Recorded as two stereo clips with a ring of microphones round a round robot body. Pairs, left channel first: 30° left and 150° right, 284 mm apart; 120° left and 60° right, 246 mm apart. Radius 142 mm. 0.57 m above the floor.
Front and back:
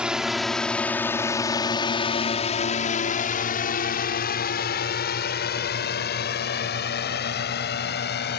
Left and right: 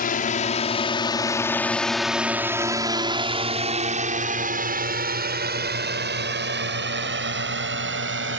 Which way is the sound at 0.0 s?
125° left.